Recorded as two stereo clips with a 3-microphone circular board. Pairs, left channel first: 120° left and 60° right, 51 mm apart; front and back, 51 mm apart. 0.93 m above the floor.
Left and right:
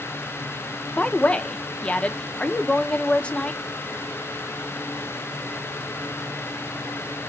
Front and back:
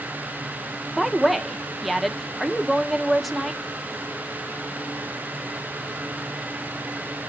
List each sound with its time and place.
1.0 s a woman speaking: 90° left, 0.5 m